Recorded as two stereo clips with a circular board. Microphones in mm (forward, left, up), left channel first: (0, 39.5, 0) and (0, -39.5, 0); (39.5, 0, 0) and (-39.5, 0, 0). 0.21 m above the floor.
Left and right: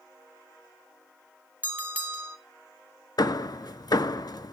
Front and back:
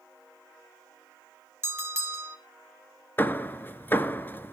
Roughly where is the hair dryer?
No hair dryer in this recording.